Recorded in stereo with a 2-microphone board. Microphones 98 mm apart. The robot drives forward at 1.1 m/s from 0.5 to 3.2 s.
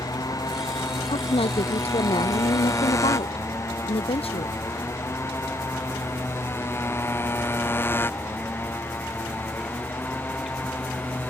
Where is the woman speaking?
80° left; by 4.6 s 85° left.